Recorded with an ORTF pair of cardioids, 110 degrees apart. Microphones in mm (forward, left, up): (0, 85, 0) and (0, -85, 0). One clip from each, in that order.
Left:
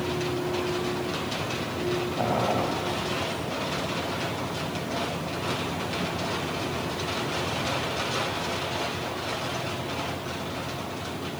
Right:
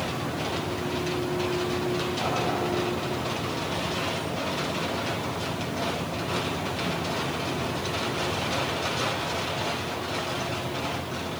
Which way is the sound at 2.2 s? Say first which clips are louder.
Left 4 dB; 65° left.